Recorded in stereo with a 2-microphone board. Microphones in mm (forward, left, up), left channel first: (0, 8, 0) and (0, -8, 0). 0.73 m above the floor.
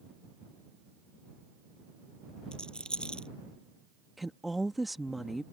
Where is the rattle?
85° left.